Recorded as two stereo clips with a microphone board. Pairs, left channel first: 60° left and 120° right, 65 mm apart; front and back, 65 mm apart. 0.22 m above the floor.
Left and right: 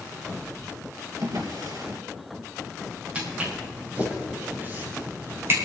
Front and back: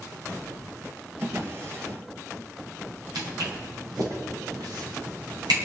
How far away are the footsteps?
About 6 m.